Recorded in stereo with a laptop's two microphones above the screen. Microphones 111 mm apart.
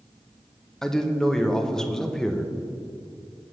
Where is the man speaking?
5° left (ahead or behind), 0.5 m.